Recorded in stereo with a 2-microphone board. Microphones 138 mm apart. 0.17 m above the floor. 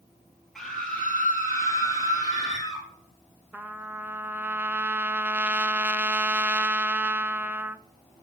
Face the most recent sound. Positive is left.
turn(degrees=-15)  # may be behind; listen again after turning